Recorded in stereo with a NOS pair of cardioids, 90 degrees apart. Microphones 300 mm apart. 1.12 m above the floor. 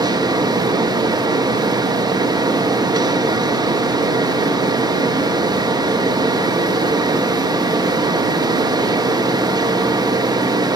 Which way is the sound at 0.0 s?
15° right.